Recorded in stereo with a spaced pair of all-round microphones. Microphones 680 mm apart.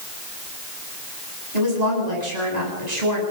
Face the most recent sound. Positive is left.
turn(degrees=-75)  # may be behind; listen again after turning